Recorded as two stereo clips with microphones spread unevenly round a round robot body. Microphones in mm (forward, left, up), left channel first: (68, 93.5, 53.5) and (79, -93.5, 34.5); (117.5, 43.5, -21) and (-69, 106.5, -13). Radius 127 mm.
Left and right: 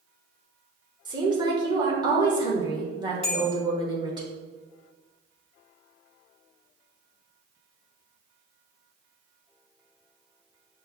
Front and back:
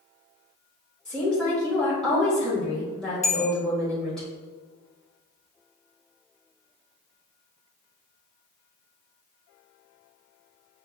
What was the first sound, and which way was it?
A woman speaking, 100° right.